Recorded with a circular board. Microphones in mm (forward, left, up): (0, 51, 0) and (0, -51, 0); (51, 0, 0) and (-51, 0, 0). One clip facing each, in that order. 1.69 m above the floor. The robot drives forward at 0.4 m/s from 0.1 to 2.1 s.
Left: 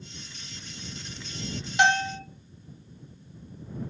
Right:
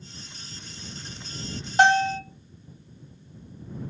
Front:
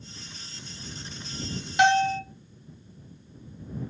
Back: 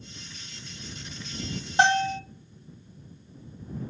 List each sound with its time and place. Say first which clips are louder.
1.8 s a bell: right 4 dB, front 2 dB; 130° right, 0.6 m; by 2.2 s 140° right, 0.7 m